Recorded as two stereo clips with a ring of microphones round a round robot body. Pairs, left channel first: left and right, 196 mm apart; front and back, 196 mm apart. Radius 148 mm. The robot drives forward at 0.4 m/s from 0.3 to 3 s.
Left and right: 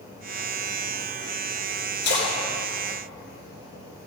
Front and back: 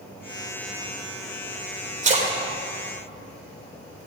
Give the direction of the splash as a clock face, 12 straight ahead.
8 o'clock.